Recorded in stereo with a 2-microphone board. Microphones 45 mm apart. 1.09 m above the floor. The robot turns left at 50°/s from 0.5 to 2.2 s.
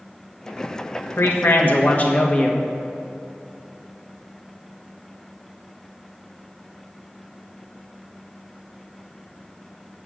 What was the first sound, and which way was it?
A man speaking, 85° left.